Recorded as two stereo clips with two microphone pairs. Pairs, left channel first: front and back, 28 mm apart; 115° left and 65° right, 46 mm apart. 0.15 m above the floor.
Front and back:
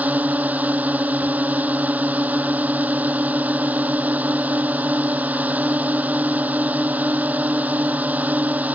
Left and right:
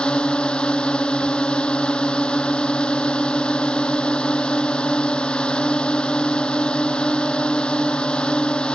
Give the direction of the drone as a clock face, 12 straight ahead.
6 o'clock.